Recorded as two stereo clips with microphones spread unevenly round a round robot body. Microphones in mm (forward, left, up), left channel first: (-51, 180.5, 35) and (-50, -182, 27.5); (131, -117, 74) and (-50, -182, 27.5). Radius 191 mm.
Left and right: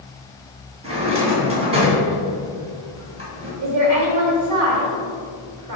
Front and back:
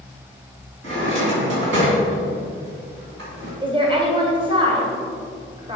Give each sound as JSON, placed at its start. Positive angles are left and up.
{"t": 0.8, "sound": "a drawer", "azimuth_deg": -165, "distance_m": 2.0}
{"t": 3.6, "sound": "a woman speaking", "azimuth_deg": -110, "distance_m": 1.8}